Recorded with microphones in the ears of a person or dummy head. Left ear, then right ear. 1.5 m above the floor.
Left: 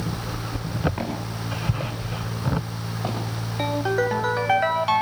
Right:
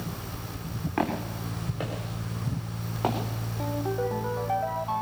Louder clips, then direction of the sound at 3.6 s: Left 7 dB; 60° left (ahead or behind).